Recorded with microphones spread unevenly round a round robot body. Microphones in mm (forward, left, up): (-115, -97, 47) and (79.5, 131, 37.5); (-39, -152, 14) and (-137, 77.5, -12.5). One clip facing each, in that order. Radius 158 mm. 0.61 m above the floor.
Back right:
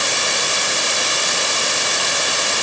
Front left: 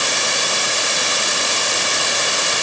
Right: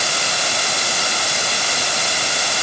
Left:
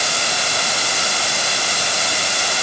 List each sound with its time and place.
Only background noise.